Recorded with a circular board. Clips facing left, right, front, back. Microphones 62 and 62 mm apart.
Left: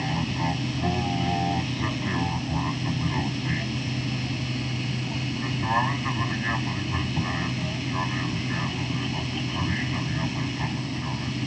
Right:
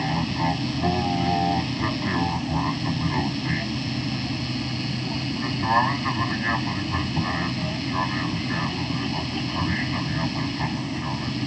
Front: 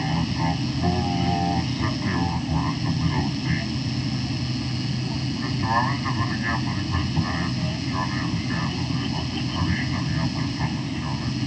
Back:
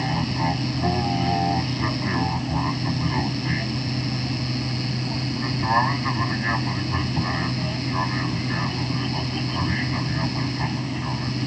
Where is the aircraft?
120° right.